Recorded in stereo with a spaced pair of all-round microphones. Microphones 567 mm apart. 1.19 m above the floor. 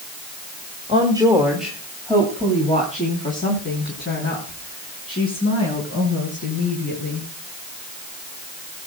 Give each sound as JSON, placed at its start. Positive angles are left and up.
{"t": 0.9, "sound": "a woman speaking", "side_deg": -10, "distance_m": 2.0}